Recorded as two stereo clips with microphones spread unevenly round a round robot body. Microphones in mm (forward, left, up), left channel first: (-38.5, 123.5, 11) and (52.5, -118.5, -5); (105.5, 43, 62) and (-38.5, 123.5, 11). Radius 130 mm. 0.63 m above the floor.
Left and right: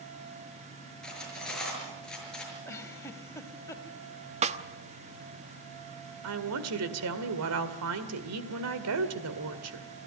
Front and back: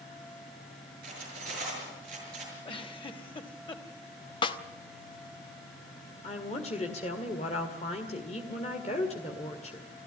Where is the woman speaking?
95° right, 1.9 m.